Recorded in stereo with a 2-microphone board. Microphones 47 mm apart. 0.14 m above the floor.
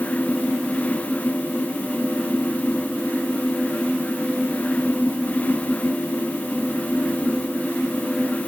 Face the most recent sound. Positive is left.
No sound to turn to.